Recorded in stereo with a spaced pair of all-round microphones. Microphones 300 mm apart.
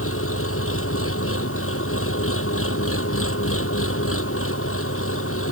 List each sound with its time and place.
0.0 s an engine running: 45° left (ahead or behind)